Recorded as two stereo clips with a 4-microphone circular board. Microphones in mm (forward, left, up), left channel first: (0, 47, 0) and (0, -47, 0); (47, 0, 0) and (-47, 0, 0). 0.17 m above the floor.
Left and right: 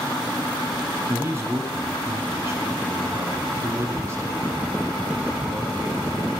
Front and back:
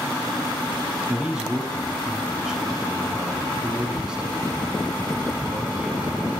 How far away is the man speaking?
About 1.4 m.